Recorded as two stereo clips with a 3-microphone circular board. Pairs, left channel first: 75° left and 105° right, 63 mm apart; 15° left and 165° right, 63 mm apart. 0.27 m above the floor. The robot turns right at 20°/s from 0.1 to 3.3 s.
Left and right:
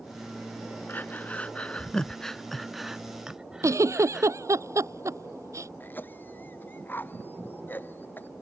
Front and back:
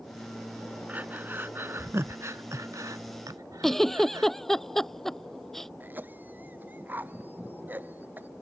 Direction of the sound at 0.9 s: 130° left.